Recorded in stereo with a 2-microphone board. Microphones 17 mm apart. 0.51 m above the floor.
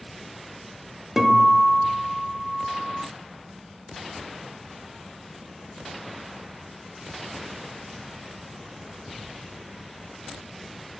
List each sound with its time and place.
1.2 s a guitar: 10° right (ahead or behind), 0.5 m